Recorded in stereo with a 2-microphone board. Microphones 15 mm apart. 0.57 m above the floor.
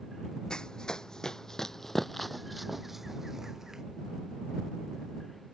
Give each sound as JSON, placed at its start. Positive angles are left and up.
{"t": 0.5, "sound": "running footsteps", "side_deg": 65}